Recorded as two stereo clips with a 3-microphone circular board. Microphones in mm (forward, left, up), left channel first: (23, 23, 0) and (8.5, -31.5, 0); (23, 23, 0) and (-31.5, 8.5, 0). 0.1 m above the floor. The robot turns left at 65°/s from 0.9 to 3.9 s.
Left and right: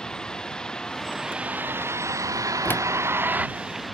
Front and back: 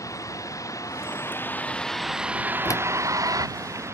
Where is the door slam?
25° left; by 2.9 s 10° left.